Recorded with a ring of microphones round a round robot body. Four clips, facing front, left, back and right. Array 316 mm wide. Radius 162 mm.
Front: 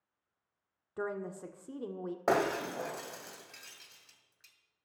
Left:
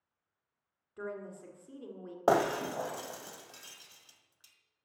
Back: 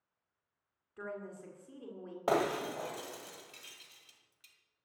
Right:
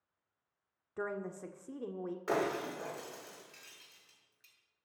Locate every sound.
1.0 s a woman speaking: 40° right, 1.6 m
2.3 s breaking glass: 80° left, 2 m